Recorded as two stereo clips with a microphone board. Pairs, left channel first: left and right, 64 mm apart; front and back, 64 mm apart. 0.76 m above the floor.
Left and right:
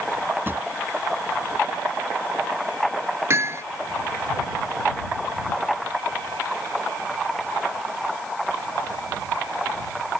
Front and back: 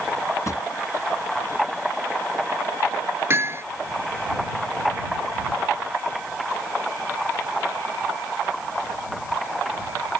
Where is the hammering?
135° right.